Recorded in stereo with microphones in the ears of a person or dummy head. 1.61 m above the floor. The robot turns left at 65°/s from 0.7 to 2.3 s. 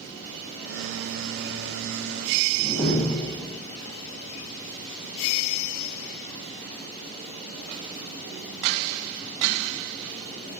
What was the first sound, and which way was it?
A door slam, 15° left (ahead or behind).